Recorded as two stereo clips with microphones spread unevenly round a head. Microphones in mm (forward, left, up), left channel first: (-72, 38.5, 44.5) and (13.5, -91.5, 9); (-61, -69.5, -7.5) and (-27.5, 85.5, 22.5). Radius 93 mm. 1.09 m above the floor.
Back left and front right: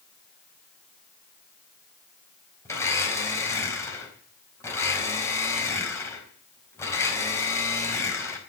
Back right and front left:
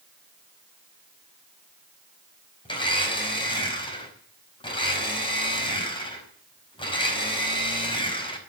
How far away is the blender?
About 4.5 m.